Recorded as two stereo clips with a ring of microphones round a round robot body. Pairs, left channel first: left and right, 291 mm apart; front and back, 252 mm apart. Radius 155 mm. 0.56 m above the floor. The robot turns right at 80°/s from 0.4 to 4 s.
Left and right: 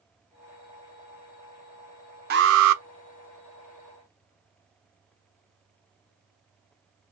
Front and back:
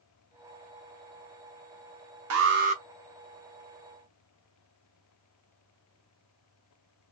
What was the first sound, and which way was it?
An alarm, 150° right.